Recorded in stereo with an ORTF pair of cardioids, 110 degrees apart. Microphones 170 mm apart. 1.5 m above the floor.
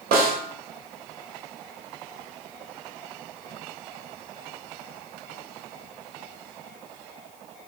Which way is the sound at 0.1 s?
65° right.